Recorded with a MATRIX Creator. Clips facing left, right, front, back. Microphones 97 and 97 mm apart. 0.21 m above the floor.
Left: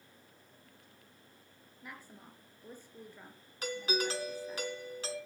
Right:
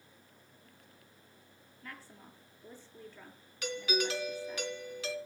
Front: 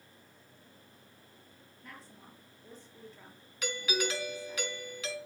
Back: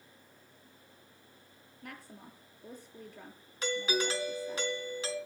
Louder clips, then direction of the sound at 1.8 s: Even, back 4 dB; 165° left.